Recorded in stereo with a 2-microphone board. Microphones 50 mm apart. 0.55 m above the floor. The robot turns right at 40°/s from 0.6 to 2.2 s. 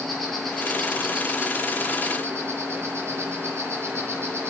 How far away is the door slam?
I don't hear a door slam.